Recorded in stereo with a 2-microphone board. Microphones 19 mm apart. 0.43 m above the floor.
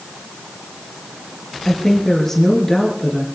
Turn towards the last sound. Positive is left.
turn(degrees=15)  # may be behind; listen again after turning